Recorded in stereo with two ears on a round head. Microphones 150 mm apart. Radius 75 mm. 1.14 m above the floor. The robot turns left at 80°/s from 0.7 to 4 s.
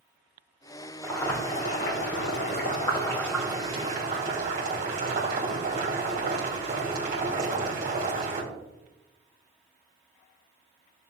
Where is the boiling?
175° right, 2.5 m; by 8.4 s 55° right, 2.5 m.